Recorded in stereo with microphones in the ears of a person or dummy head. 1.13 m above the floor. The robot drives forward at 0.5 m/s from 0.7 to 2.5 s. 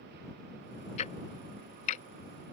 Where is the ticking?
40° left (ahead or behind).